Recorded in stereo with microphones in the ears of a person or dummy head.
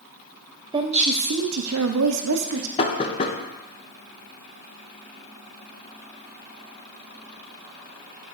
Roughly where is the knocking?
Left.